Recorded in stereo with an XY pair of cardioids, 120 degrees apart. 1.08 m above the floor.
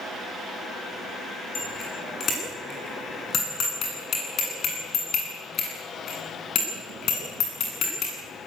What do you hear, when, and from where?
1.6 s a bicycle bell: 45° left, 9.5 m; by 8.2 s 65° left, 8.5 m